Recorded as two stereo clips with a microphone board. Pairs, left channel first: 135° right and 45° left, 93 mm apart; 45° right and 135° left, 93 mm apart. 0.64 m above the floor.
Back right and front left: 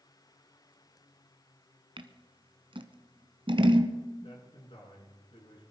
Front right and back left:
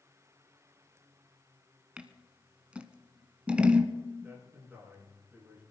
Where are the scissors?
60° left, 1.3 m.